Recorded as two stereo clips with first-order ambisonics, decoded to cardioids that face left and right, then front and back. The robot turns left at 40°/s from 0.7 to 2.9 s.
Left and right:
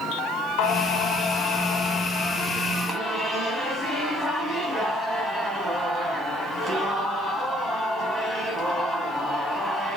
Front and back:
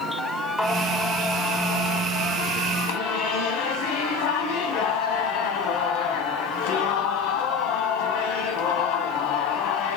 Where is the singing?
85° left, 1.1 m; by 10.0 s 5° right, 1.1 m.